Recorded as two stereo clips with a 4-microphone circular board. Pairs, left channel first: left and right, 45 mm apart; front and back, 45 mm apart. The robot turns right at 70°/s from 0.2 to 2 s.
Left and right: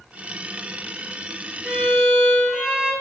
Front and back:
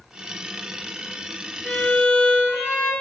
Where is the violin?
25° right, 1.4 m; by 2.9 s straight ahead, 1.4 m.